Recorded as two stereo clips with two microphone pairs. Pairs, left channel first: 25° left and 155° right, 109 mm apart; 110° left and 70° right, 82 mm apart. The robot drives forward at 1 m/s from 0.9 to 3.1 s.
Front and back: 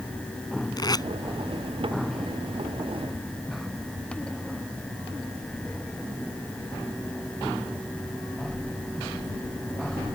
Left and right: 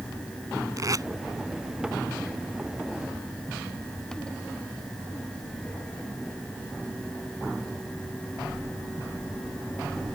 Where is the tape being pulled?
25° right; by 1.1 s 30° right.